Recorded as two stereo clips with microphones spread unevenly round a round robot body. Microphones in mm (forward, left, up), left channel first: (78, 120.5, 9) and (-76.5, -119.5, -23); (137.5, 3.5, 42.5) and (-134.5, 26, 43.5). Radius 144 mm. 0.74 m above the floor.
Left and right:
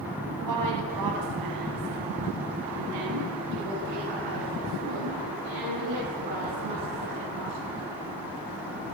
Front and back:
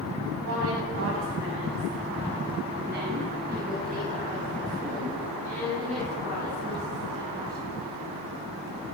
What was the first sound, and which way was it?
A woman speaking, 145° right.